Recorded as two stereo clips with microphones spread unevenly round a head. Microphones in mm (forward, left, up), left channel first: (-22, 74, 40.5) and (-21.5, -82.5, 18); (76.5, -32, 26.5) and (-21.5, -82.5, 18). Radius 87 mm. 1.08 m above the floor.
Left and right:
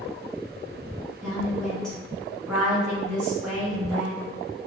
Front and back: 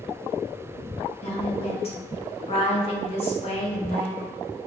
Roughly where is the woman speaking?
Ahead.